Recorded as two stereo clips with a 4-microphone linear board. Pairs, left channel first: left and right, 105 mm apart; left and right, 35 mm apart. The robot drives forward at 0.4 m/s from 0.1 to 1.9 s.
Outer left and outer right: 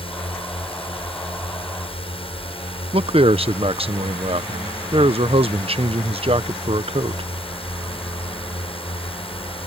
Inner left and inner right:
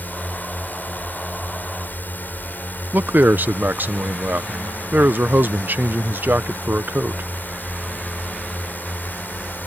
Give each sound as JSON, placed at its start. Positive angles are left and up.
{"t": 0.0, "sound": "a drone", "side_deg": 60}
{"t": 2.9, "sound": "a man speaking", "side_deg": -65}